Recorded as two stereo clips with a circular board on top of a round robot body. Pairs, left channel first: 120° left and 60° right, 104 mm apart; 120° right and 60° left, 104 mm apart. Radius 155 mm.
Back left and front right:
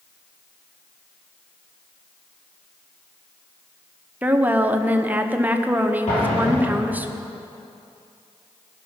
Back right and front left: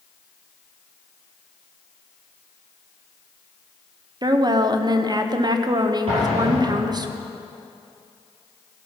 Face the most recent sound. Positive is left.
turn(degrees=95)